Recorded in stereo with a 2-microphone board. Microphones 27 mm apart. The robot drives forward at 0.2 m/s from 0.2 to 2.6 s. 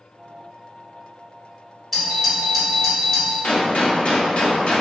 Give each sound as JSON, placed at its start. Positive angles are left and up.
{"t": 1.9, "sound": "a doorbell", "side_deg": 5, "distance_m": 1.6}
{"t": 3.4, "sound": "a gunshot", "side_deg": 50, "distance_m": 0.6}